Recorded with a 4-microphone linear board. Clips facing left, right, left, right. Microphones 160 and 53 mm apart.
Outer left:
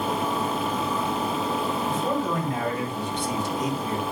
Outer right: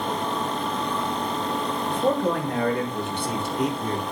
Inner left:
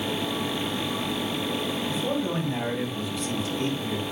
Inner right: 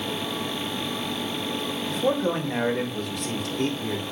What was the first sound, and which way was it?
A man speaking, 70° right (ahead or behind).